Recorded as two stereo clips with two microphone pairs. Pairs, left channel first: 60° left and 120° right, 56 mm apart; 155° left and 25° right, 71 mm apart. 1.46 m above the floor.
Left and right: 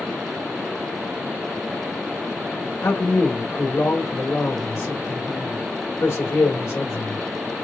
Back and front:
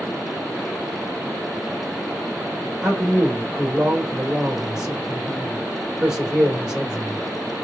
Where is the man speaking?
55° left, 1.9 m.